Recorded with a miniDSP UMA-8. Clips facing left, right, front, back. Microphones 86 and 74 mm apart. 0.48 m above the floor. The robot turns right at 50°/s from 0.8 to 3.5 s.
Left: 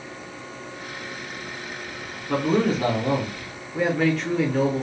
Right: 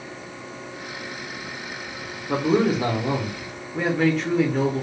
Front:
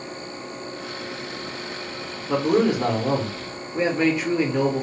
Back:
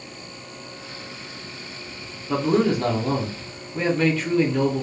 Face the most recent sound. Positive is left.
turn(degrees=-10)